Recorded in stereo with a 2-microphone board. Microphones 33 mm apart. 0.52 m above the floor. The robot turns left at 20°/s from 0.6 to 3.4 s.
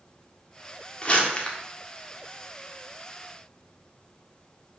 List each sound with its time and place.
1.0 s crumpling: 30° left (ahead or behind), 1.4 m; by 1.6 s 25° left (ahead or behind), 1.4 m